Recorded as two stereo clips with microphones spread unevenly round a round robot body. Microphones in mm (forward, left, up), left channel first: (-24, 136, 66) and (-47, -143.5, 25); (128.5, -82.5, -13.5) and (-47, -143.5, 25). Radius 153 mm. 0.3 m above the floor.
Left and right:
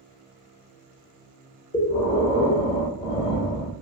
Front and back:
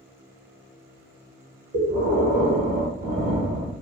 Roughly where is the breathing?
Behind.